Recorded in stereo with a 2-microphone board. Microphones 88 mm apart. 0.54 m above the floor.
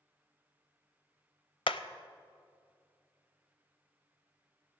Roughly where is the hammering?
Left.